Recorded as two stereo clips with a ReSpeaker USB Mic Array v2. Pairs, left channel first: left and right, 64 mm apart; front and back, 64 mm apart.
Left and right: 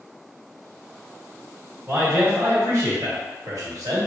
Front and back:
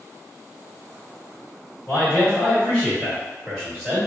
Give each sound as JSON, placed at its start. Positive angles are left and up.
{"t": 1.9, "sound": "a man speaking", "azimuth_deg": -55, "distance_m": 1.7}